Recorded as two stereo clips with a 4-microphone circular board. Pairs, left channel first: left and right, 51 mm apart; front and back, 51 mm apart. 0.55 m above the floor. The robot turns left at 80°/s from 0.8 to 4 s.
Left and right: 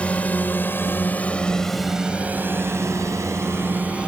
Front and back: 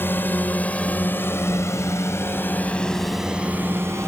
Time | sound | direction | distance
0.0 | a drone | 30° left | ?